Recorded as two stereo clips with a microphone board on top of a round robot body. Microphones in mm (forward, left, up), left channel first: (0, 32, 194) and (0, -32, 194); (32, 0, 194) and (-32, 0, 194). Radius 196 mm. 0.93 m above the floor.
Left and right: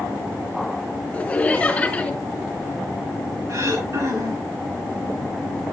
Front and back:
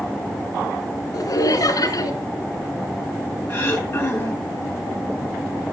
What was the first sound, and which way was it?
Laughter, 20° left.